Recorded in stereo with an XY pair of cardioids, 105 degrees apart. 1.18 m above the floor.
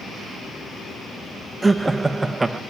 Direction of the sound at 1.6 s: 15° right.